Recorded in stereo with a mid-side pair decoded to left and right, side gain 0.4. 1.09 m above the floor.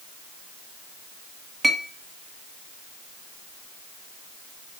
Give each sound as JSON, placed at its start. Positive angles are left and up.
{"t": 1.6, "sound": "a clink", "azimuth_deg": -30, "distance_m": 1.6}